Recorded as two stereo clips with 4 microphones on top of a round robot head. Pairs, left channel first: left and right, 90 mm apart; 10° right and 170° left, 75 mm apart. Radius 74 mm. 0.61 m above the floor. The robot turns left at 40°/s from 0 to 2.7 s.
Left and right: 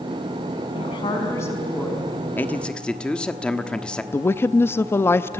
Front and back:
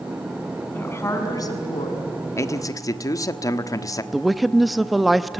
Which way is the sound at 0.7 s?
50° left.